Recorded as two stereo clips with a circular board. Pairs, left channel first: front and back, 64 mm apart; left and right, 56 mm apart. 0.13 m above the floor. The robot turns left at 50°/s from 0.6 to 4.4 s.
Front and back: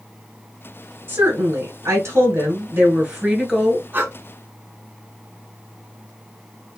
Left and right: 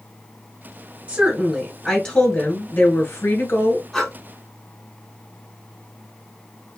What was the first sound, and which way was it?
A woman speaking, 150° right.